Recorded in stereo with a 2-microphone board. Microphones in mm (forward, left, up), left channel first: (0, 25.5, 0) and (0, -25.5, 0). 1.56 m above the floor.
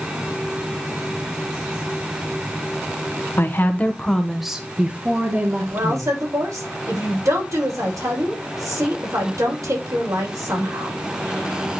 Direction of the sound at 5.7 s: 80° right.